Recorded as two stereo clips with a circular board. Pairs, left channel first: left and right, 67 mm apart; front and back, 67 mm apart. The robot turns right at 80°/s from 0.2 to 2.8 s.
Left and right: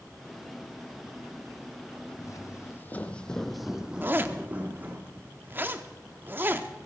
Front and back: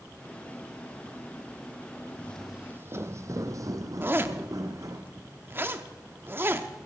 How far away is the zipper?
About 0.7 m.